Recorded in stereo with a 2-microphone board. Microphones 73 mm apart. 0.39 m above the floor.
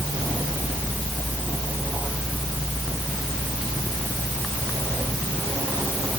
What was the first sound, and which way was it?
Only background noise.